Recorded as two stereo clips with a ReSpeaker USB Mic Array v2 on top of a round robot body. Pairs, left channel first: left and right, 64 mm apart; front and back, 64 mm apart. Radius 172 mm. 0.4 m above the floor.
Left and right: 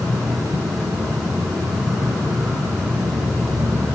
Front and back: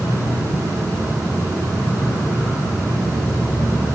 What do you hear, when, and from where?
0.0 s an insect: 55° right, 1.3 m